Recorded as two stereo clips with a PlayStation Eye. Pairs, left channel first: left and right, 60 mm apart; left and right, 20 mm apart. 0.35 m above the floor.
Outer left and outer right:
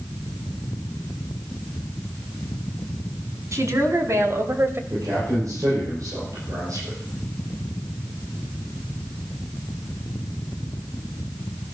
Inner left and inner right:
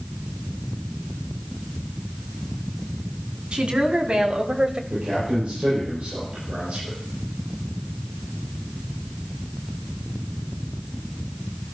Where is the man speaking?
80° right, 9.5 m.